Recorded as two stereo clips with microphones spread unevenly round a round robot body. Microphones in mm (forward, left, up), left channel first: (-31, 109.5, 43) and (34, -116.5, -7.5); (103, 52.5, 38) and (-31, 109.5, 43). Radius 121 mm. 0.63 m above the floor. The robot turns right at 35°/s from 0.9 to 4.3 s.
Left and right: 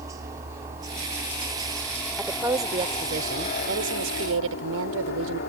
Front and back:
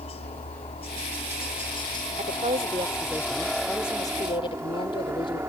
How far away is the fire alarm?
I don't hear a fire alarm.